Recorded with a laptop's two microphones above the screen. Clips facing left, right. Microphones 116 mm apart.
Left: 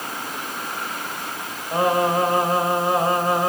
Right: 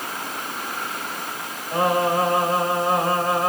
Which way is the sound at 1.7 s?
20° left (ahead or behind).